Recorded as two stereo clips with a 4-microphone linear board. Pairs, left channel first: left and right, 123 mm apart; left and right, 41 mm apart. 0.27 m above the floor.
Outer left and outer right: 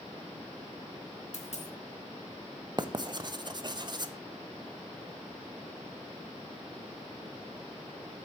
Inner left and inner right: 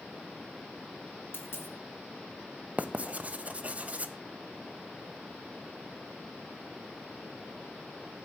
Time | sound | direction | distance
1.3 | a dropped coin | 65° left (ahead or behind) | 1.6 m
2.8 | writing | 35° right (ahead or behind) | 0.6 m